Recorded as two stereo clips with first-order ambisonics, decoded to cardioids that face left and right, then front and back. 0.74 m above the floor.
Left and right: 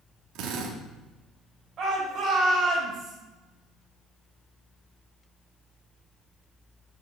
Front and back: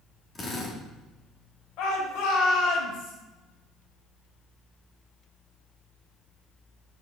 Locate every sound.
0.3 s a drill: 70° right, 1.6 m
1.8 s a shout: 30° right, 3.5 m